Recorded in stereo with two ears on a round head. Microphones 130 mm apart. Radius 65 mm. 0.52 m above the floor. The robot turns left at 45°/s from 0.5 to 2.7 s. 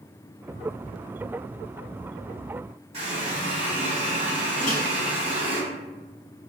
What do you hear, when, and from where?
2.9 s a running tap: 50° right (ahead or behind), 1.9 m
4.6 s a microwave: 50° left (ahead or behind), 0.8 m